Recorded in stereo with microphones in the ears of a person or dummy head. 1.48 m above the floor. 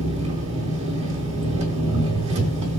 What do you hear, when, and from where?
0.0 s an engine running: 35° right (ahead or behind), 4.5 m